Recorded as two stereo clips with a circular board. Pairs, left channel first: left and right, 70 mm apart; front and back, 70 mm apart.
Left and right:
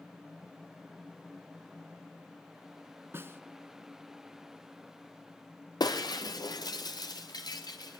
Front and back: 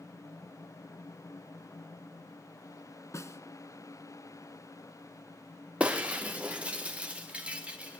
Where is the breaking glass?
110° left, 2 m.